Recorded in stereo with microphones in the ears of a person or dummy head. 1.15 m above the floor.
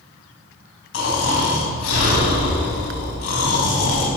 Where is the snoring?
85° left, 4.5 m.